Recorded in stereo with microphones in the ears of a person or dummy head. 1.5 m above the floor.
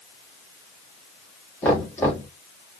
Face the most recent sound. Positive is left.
turn(degrees=10)  # may be behind; listen again after turning